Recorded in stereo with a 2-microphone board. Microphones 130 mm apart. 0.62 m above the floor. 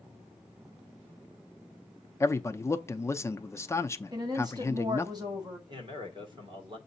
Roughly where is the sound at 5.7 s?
Right.